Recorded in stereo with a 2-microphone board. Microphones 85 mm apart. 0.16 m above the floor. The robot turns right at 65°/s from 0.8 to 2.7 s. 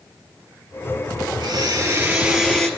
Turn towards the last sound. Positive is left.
turn(degrees=15)